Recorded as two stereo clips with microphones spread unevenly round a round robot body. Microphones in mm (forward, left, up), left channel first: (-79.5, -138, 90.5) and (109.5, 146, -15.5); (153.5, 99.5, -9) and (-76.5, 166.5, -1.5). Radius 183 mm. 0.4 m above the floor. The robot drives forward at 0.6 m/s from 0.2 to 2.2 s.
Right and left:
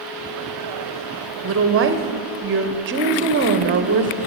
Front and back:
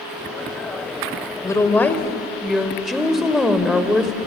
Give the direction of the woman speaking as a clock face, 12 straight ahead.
10 o'clock.